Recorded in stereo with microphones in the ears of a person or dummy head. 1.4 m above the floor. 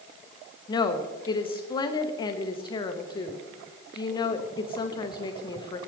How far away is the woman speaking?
About 0.8 m.